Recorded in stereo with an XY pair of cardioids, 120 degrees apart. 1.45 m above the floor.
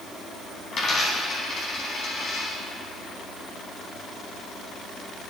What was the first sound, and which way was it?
A dropped coin, 45° left.